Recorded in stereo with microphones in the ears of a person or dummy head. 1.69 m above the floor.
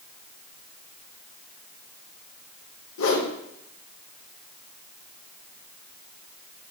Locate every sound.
3.0 s a whoosh: 65° left (ahead or behind), 1.4 m